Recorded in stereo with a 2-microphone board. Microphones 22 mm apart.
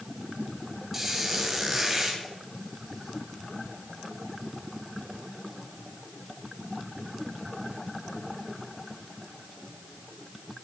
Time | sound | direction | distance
0.9 | a squeak | 15° right (ahead or behind) | 2.5 m